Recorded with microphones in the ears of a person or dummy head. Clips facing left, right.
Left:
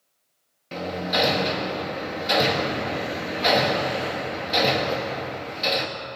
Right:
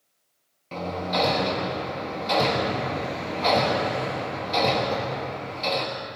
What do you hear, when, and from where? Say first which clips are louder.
0.7 s hammering: left 1 dB; 10° left (ahead or behind), 1.3 m